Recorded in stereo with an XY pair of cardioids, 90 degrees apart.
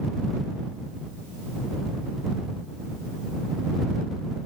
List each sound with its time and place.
Only background noise.